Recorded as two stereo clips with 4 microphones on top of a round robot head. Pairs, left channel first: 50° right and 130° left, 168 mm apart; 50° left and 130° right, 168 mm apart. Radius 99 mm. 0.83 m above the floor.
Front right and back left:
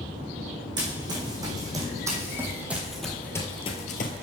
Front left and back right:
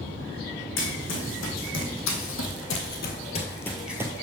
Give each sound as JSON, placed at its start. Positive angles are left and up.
{"t": 0.8, "sound": "running footsteps", "azimuth_deg": 60, "distance_m": 3.0}